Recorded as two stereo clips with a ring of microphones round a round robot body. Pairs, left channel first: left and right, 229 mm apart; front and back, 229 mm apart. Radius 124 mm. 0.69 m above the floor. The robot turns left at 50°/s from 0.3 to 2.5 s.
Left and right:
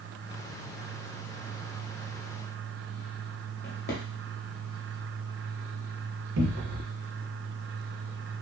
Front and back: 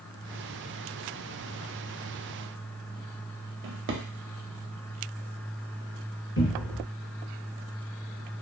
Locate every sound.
3.6 s a drawer: 145° left, 0.6 m
6.4 s a cupboard door: 45° right, 0.7 m